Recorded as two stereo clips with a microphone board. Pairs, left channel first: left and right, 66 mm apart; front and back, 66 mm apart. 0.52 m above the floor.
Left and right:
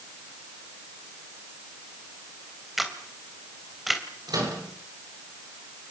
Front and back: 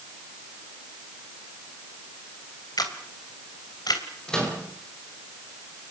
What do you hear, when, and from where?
2.8 s a camera shutter: straight ahead, 3 m
4.3 s a microwave: 80° right, 8.5 m